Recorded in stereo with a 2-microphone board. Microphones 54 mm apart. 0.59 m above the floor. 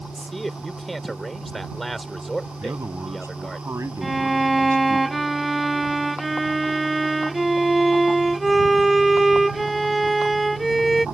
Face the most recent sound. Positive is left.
turn(degrees=0)  # may be behind; listen again after turning